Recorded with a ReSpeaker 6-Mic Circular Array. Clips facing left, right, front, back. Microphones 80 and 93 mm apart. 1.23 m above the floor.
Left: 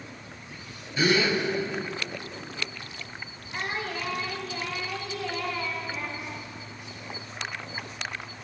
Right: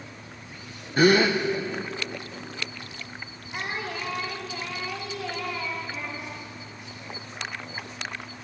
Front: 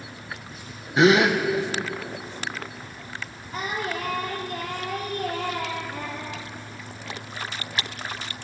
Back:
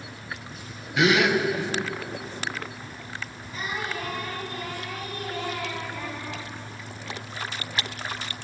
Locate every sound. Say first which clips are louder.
1.0 s a gasp: right 5 dB, front 3 dB; 55° right, 0.9 m
3.5 s singing: even, front 3 dB; 10° right, 3.5 m